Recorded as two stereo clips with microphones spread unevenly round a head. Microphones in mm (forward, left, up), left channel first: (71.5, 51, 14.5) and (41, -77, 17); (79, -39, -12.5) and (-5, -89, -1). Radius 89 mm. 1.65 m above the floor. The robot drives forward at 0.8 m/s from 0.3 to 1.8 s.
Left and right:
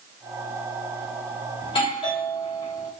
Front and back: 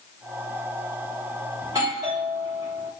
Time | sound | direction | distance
1.6 | a doorbell | 135° left | 1.3 m